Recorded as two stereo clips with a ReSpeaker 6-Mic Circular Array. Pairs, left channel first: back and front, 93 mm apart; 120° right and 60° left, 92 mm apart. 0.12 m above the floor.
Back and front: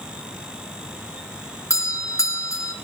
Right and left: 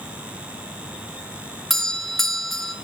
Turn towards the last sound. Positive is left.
turn(degrees=155)